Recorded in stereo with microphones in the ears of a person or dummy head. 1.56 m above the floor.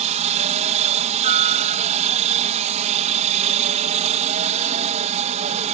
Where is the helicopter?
30° right (ahead or behind).